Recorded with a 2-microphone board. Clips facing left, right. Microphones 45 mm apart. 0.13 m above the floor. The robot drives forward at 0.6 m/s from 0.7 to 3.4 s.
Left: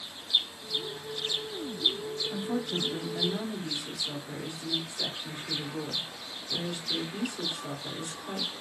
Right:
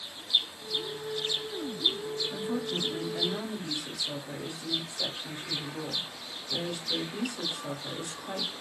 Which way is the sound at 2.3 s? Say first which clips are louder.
Left 2 dB; 15° left (ahead or behind).